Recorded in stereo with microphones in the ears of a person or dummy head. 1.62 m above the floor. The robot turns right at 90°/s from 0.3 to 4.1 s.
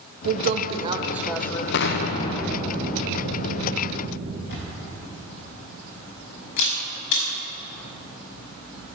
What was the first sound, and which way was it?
A woman speaking, 80° right.